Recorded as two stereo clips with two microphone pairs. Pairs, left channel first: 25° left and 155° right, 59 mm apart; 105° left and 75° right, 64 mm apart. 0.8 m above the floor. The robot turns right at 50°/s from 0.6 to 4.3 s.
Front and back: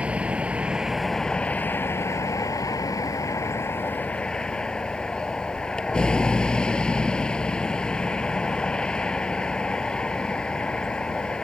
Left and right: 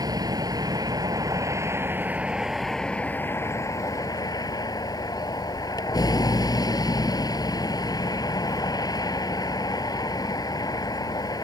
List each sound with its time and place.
0.0 s a vehicle: 85° right; by 11.4 s 100° left